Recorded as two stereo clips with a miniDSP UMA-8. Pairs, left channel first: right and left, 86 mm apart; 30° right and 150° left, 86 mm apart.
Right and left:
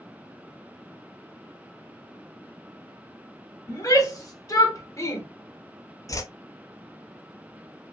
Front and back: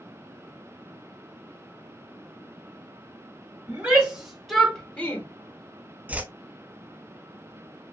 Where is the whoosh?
135° right, 0.7 m.